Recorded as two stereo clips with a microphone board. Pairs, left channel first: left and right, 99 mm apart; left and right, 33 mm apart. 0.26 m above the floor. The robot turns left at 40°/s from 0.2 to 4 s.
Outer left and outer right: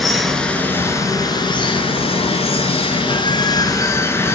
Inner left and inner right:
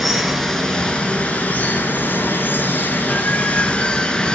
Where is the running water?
Straight behind, 1.4 m; by 4.4 s 25° left, 1.4 m.